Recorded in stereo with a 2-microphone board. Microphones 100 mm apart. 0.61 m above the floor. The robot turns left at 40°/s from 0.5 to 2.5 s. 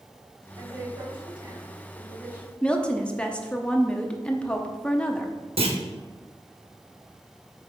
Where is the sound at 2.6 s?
10° left (ahead or behind), 0.7 m.